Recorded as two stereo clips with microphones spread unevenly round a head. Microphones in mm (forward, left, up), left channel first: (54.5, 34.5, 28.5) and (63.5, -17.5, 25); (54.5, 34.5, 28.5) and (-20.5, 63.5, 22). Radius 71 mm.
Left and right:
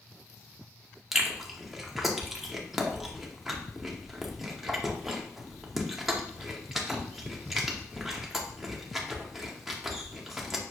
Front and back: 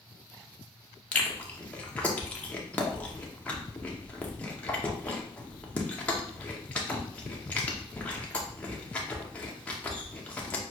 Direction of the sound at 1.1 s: 5° left.